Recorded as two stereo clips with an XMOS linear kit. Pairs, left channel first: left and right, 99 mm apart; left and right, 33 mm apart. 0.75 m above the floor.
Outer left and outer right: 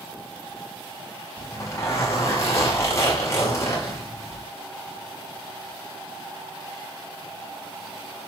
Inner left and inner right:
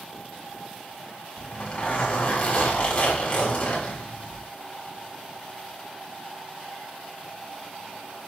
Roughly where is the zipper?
Left.